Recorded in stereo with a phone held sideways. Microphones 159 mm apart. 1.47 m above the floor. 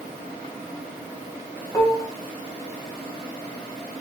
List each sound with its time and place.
1.7 s dishes clattering: 20° left (ahead or behind), 0.9 m